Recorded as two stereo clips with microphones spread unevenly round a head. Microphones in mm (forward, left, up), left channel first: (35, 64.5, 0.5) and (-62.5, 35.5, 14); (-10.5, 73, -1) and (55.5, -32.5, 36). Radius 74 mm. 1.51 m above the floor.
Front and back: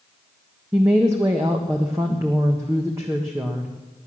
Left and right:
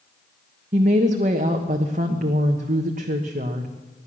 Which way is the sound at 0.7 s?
90° right.